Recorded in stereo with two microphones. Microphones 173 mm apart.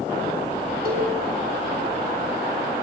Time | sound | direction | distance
0.8 | a cowbell | 55° right (ahead or behind) | 3.5 m